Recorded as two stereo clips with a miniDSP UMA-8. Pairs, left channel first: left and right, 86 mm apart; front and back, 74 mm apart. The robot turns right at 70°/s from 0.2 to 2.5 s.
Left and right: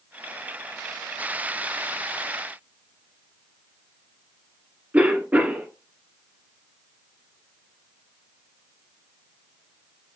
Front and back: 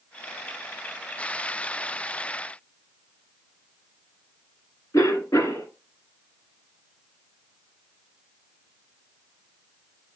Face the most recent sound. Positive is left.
turn(degrees=-25)